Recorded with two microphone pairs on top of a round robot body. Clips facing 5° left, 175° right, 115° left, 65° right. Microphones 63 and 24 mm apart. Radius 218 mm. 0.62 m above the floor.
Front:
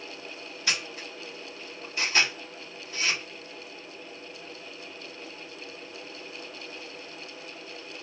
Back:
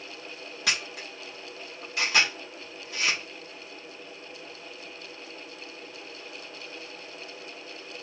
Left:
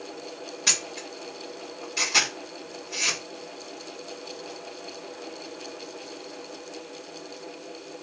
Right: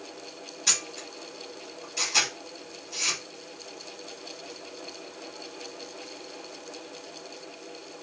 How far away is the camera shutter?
About 1.4 m.